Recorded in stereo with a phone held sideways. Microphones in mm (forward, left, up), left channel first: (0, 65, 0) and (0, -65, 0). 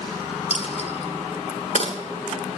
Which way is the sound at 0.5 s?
55° left (ahead or behind).